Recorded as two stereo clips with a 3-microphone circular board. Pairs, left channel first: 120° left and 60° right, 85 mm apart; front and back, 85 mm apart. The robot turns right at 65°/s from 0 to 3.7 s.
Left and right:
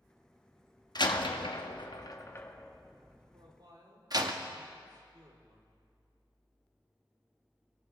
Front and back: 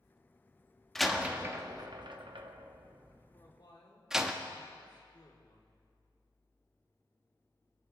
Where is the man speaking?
50° right, 2 m; by 5.8 s 25° right, 2 m.